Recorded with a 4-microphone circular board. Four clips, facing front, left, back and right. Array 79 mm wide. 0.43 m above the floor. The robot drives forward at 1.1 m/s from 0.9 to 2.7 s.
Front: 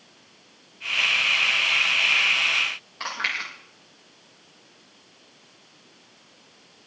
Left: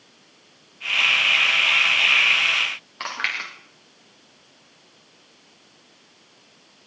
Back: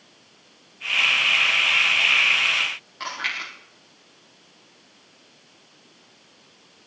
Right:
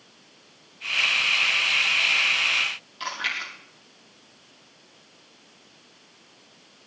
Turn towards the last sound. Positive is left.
turn(degrees=85)